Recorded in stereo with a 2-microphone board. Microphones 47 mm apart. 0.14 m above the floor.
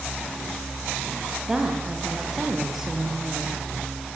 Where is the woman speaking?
10° right (ahead or behind), 6 m.